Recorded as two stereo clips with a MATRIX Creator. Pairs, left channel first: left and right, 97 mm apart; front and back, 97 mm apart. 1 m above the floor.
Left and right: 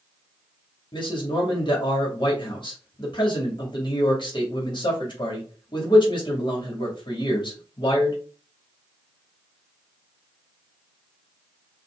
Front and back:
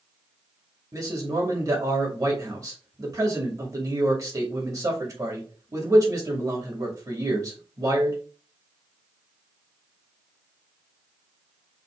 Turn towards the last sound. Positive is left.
turn(degrees=125)